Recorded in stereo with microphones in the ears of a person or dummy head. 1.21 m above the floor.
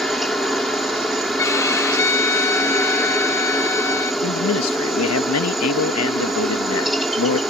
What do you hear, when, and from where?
0.0 s a helicopter: centre (ahead or behind)
1.4 s a violin: 10° left (ahead or behind)
4.2 s a man speaking: 85° left